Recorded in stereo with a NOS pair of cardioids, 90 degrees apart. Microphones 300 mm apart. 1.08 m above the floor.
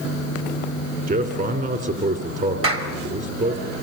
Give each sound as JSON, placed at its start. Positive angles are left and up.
{"t": 1.1, "sound": "a man speaking", "azimuth_deg": -35, "distance_m": 3.5}
{"t": 2.6, "sound": "a clap", "azimuth_deg": -45, "distance_m": 4.0}